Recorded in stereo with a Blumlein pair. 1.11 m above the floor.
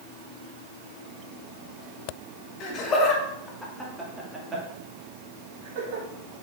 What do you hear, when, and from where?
2.6 s laughter: 35° left, 3 m; by 6.0 s 45° right, 3.5 m